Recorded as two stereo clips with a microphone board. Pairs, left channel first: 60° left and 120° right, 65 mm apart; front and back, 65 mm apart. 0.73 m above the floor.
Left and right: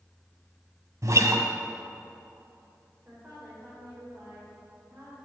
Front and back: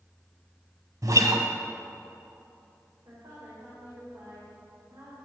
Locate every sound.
1.0 s a guitar: 155° right, 1.3 m
3.0 s a woman speaking: 175° left, 3.5 m